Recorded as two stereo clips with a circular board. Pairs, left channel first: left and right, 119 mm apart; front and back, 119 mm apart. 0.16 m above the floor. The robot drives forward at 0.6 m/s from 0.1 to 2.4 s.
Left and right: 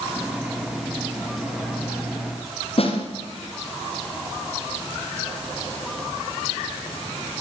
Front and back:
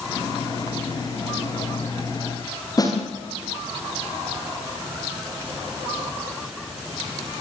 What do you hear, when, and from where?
2.8 s a snare drum: 55° left, 7.5 m